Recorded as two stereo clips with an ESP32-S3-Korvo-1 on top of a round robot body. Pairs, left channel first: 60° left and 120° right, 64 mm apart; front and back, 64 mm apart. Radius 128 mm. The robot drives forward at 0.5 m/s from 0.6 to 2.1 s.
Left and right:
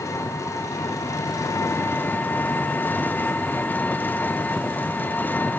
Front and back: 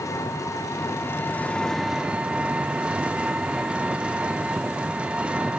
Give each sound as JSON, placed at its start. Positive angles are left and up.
{"t": 0.0, "sound": "an engine running", "azimuth_deg": 30, "distance_m": 0.8}